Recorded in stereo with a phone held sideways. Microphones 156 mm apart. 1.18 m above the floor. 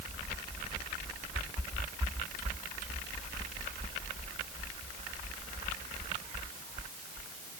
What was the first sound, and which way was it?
Only background noise.